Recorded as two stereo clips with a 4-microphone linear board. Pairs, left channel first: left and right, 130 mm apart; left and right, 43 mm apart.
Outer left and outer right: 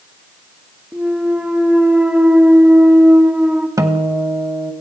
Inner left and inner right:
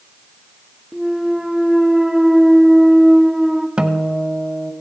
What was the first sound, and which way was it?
A clunk, 10° right (ahead or behind).